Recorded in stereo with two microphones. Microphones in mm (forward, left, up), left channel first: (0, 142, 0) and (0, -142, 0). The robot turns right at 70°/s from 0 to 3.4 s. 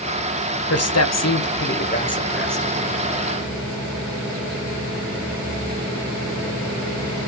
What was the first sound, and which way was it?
A man speaking, 65° left.